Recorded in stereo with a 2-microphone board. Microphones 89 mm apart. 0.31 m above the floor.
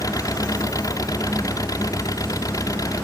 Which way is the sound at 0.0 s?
40° left (ahead or behind).